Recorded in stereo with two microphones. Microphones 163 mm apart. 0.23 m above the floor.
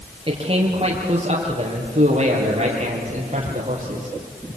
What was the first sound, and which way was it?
A man speaking, 35° right (ahead or behind).